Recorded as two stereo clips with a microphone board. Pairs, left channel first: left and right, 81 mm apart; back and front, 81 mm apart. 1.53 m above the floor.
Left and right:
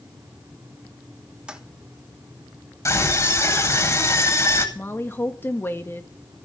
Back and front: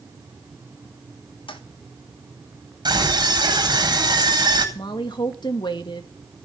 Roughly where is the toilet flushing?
Behind.